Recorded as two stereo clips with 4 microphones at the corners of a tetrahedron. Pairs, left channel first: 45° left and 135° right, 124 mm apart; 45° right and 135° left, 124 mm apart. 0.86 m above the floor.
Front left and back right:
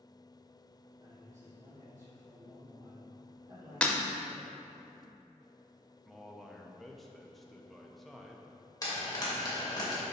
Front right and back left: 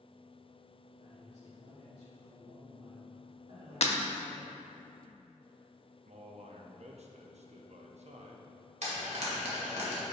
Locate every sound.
1.0 s a man speaking: 170° left, 2.5 m
3.8 s breaking glass: 35° right, 0.7 m
6.0 s a man speaking: 135° left, 0.8 m
8.8 s frying: 105° left, 2.0 m